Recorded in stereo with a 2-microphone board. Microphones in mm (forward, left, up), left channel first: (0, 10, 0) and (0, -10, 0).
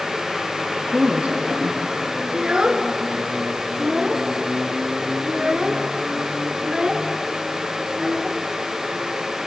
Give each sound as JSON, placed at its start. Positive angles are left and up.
{"t": 0.9, "sound": "a woman speaking", "side_deg": -65, "distance_m": 3.5}
{"t": 2.3, "sound": "a child speaking", "side_deg": -50, "distance_m": 1.9}